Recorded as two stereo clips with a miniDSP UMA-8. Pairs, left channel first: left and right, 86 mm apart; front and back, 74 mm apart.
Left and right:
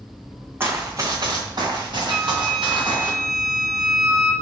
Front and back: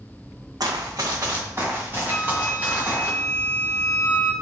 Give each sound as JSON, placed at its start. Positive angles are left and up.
{"t": 0.6, "sound": "running footsteps", "azimuth_deg": -150, "distance_m": 0.9}
{"t": 2.1, "sound": "a flute", "azimuth_deg": -65, "distance_m": 1.5}